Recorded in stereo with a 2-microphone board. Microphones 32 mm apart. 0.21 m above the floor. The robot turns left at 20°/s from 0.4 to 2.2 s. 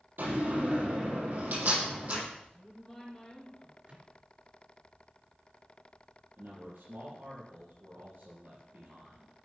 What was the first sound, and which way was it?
A door slam, 80° right.